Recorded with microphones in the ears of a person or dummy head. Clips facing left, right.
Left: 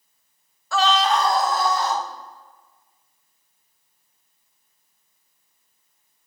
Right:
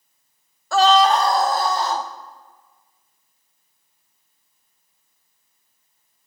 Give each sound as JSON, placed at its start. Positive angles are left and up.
{"t": 0.7, "sound": "a scream", "side_deg": -35, "distance_m": 0.7}